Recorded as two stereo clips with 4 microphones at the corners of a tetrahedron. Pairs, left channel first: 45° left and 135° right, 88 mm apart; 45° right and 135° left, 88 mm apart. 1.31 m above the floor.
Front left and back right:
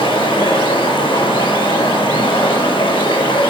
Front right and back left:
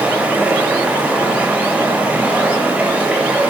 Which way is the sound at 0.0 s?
60° left.